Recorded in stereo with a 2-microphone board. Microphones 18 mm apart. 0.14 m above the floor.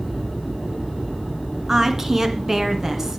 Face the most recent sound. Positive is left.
turn(degrees=-20)  # may be behind; listen again after turning